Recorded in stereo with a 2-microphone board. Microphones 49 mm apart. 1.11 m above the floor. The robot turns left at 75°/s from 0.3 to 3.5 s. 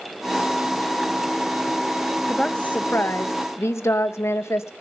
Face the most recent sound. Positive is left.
turn(degrees=85)